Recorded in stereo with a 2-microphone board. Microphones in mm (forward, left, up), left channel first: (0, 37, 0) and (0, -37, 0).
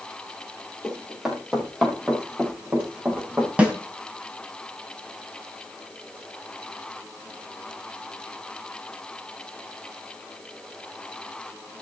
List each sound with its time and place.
0.8 s running footsteps: 5° right (ahead or behind), 7.5 m; by 3.5 s 20° right (ahead or behind), 7.5 m
3.6 s a snare drum: 20° right (ahead or behind), 2.5 m